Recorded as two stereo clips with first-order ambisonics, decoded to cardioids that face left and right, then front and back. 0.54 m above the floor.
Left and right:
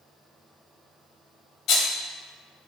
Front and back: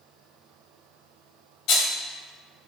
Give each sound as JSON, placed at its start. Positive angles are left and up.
{"t": 1.7, "sound": "a rattle", "azimuth_deg": 40, "distance_m": 0.8}